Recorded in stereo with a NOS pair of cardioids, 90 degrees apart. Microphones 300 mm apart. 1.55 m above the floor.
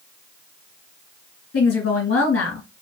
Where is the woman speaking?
55° left, 3 m.